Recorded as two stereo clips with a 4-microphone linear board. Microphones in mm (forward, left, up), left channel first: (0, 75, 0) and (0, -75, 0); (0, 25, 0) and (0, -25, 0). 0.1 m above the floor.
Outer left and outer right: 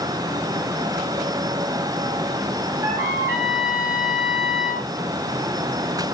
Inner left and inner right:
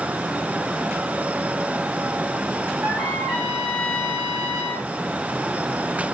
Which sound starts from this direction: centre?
A trumpet, at 2.8 s.